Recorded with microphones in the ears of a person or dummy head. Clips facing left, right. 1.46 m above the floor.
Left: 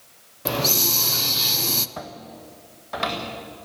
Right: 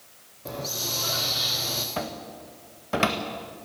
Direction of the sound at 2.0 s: 40° right (ahead or behind).